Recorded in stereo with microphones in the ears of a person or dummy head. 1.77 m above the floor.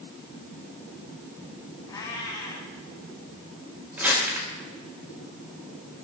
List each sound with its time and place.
1.9 s a cat meowing: 25° left (ahead or behind), 4.5 m
4.0 s crumpling: 10° right (ahead or behind), 5 m